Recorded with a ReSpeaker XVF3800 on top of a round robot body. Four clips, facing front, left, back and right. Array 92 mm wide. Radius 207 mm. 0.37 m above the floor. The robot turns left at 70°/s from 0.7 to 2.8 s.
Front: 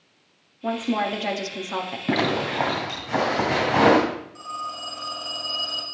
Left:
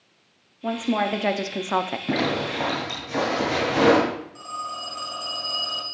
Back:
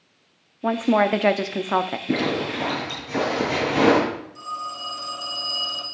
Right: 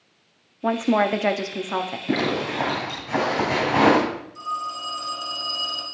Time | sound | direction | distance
0.6 | a woman speaking | 130° right | 0.9 m
2.1 | a zipper | 15° left | 3 m
4.3 | a phone ringing | 45° left | 3 m